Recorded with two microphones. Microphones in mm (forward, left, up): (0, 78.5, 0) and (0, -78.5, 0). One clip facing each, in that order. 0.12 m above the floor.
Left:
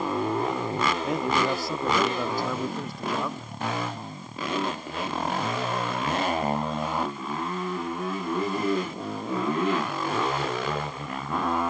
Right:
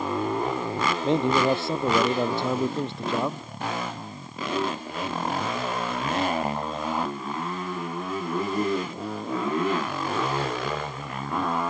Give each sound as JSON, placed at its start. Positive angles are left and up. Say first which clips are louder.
{"t": 1.0, "sound": "a man speaking", "louder": "right 8 dB", "side_deg": -25}